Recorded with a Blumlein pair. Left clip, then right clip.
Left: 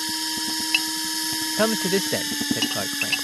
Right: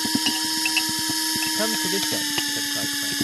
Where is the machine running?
5° right.